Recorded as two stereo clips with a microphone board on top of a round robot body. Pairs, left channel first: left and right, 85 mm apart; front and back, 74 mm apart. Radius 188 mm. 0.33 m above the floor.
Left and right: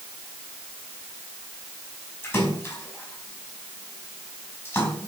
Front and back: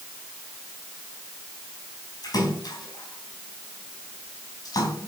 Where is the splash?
30° left, 4.5 m.